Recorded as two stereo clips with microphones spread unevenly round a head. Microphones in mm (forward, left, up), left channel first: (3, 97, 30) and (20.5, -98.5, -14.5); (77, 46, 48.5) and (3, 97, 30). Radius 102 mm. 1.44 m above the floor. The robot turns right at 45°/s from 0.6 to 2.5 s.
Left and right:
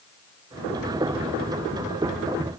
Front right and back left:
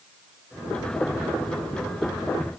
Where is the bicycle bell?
I don't hear a bicycle bell.